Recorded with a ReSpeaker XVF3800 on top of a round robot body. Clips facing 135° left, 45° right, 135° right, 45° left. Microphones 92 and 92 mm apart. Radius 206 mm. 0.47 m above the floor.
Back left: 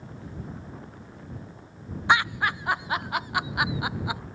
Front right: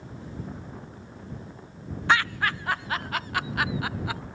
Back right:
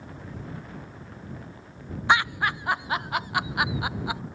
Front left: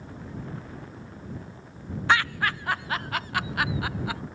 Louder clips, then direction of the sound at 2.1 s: Back left 1 dB, back right 1 dB; straight behind.